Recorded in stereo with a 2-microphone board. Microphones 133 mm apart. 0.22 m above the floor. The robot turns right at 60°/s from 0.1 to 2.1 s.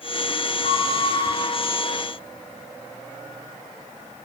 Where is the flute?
60° left, 0.8 m; by 1.4 s 105° left, 0.8 m.